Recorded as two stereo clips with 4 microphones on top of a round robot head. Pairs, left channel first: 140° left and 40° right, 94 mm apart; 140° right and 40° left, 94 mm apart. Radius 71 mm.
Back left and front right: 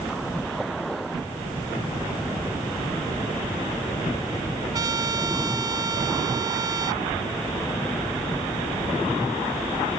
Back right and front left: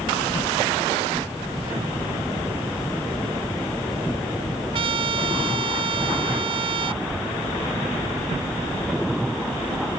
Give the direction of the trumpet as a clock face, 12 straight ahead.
12 o'clock.